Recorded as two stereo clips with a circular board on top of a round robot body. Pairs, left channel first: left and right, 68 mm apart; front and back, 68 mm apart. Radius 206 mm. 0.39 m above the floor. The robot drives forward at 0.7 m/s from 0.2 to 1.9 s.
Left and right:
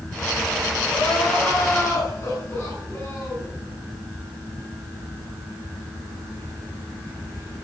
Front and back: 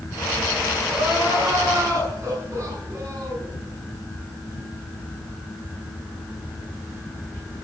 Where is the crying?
135° left, 6 m; by 3.5 s 140° left, 6.5 m.